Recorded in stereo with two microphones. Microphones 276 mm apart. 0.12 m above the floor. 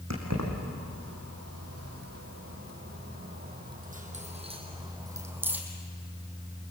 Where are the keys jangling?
75° right (ahead or behind), 5 m; by 5.6 s 5° right (ahead or behind), 4 m.